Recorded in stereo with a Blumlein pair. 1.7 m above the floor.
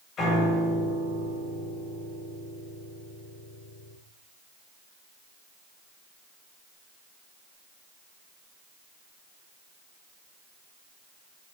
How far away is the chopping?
No chopping in this recording.